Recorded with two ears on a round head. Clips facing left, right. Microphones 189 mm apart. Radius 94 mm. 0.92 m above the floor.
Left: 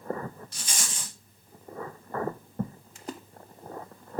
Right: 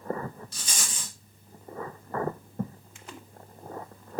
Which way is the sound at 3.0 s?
30° left (ahead or behind).